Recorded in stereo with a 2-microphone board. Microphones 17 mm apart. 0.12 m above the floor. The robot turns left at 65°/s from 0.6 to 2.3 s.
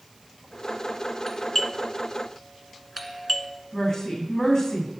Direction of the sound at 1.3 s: 20° left (ahead or behind).